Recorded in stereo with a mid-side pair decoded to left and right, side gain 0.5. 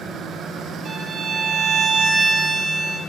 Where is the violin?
70° right, 3.5 m.